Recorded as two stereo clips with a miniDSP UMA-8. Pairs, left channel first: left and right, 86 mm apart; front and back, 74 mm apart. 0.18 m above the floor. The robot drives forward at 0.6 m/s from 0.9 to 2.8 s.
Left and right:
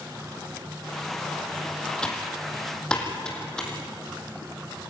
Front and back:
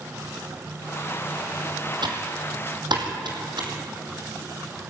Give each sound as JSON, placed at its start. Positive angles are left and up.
{"t": 2.0, "sound": "typing on a keyboard", "azimuth_deg": 170, "distance_m": 3.0}